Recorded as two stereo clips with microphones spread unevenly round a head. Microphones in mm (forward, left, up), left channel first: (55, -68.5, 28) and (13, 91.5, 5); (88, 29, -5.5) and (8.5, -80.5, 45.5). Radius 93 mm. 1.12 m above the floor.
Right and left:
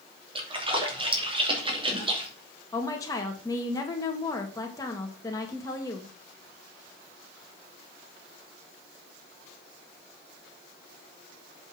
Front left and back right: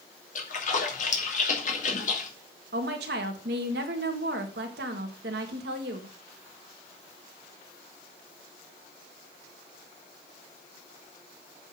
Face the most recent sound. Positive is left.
turn(degrees=-150)